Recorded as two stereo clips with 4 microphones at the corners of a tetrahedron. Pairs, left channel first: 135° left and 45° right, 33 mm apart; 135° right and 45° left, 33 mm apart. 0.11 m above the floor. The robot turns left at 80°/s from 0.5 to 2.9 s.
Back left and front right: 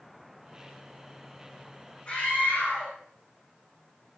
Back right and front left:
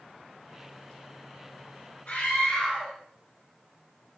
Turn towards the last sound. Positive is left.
turn(degrees=125)